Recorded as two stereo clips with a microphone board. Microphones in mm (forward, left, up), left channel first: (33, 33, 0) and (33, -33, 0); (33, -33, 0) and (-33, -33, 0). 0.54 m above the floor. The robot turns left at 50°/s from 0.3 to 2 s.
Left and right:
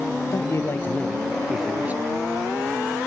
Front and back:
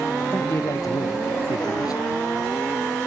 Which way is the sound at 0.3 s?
55° left.